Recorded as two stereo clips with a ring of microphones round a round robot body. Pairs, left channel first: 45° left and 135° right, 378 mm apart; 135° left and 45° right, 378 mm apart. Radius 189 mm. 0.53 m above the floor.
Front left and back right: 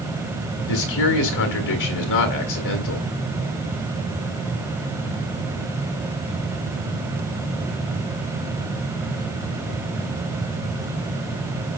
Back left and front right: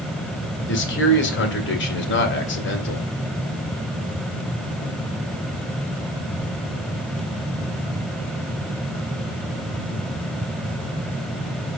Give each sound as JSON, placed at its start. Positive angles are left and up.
{"t": 0.7, "sound": "a man speaking", "azimuth_deg": 75, "distance_m": 2.0}